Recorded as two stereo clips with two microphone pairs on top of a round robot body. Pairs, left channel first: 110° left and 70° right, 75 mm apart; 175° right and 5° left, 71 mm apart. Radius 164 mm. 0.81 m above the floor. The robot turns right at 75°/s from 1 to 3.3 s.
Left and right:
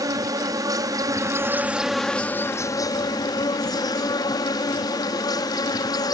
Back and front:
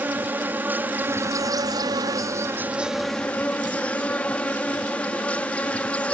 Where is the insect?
55° right; by 6.1 s 120° left.